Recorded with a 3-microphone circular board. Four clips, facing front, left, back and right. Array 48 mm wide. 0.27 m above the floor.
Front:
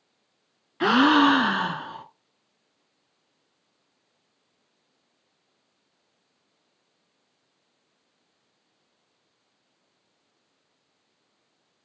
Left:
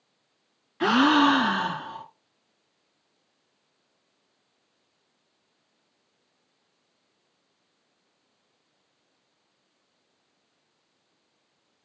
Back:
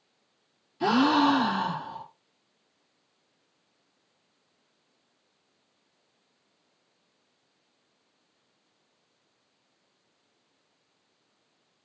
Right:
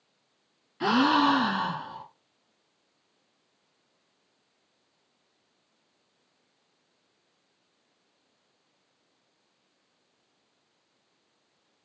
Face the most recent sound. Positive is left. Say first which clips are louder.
# left 3 dB, front 4 dB
turn(degrees=25)